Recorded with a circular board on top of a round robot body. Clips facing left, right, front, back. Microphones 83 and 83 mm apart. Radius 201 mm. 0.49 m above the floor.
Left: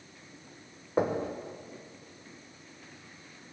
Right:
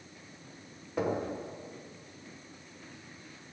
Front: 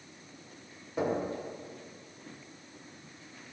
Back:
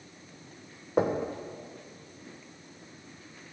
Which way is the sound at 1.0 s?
145° left.